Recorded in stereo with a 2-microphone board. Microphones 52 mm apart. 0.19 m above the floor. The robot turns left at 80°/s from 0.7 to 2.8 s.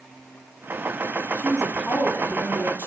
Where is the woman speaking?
150° right, 1.2 m; by 2.9 s 95° left, 1.2 m.